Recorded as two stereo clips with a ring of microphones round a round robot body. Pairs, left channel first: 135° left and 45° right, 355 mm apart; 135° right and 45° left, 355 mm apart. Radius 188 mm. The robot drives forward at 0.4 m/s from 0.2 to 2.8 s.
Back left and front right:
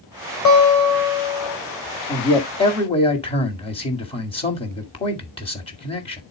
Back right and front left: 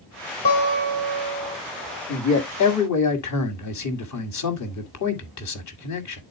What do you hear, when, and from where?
0.5 s a guitar: 175° left, 4 m
2.1 s a man speaking: 150° right, 1.9 m; by 6.2 s 155° right, 2 m